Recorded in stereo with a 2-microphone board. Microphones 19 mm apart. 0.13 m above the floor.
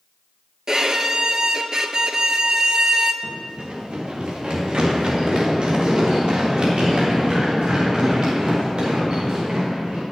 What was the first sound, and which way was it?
A violin, 35° right (ahead or behind).